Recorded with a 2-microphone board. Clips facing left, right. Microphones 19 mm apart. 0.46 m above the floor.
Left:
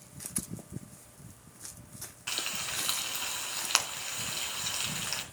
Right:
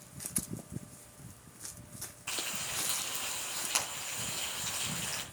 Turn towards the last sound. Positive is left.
turn(degrees=50)  # may be behind; listen again after turning